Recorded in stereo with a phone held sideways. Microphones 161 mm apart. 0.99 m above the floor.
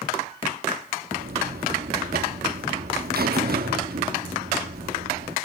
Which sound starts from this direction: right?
A buzzer, at 1.1 s.